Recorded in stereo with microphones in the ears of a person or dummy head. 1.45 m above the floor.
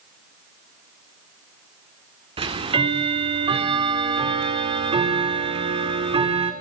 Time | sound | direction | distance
2.4 | ticking | 20° right (ahead or behind) | 1.7 m